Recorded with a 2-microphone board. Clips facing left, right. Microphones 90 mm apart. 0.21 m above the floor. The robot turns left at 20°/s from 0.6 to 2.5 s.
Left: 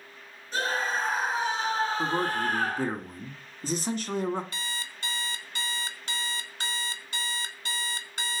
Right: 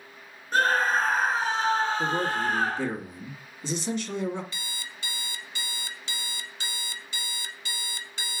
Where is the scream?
130° right, 3.5 m; by 2.9 s 165° right, 3.5 m.